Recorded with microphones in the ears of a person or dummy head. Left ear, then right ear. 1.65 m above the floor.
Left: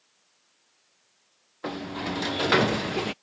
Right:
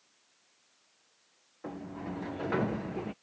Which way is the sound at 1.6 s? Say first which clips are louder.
Left 9 dB; 55° left (ahead or behind).